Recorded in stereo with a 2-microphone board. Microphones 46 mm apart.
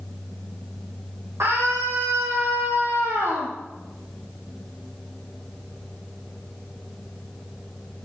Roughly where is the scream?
Right.